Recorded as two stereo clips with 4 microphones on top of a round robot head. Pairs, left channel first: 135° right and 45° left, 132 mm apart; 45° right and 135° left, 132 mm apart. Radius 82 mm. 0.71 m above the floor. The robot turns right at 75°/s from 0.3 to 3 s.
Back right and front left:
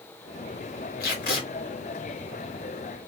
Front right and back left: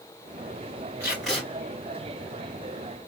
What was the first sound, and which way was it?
Tape being pulled, 155° right.